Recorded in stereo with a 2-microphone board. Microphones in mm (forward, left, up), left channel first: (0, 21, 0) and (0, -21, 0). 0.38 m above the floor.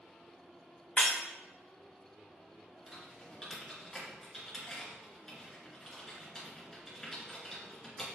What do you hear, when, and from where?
1.0 s breaking glass: 40° left (ahead or behind), 3.5 m
2.9 s typing on a keyboard: 5° left (ahead or behind), 3 m